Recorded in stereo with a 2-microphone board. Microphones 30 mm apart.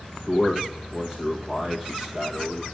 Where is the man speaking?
25° right (ahead or behind), 1.7 m.